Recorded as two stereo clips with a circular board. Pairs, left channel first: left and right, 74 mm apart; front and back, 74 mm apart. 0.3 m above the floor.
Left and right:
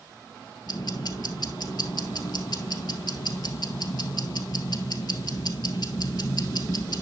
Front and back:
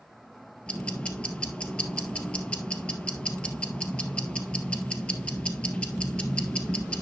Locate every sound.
0.7 s ticking: 75° left, 1.5 m